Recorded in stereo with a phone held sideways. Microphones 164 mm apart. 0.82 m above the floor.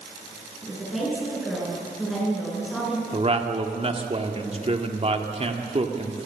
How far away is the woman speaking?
About 8.5 m.